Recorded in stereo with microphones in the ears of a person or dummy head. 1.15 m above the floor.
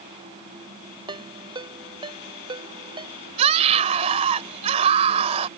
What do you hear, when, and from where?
1.1 s a ringtone: 30° right (ahead or behind)
3.4 s a scream: 35° right (ahead or behind)